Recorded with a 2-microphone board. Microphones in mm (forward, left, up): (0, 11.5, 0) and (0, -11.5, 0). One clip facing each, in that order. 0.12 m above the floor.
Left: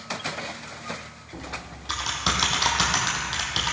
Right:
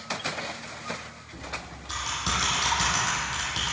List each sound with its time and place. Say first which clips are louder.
1.3 s typing on a keyboard: left 1 dB; 40° left (ahead or behind), 2 m